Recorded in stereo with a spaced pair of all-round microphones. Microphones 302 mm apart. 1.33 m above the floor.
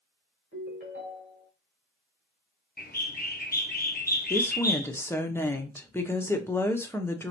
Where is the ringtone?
40° left (ahead or behind), 3 m.